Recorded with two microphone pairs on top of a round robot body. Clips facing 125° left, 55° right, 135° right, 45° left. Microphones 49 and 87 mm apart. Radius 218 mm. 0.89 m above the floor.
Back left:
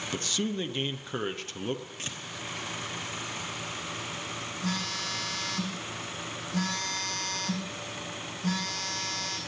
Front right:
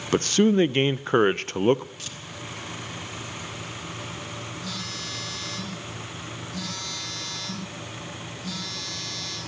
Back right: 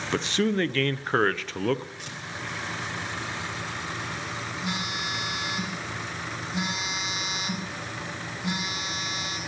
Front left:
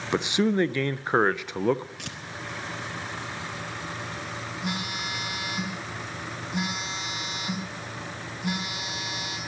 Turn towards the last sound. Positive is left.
turn(degrees=75)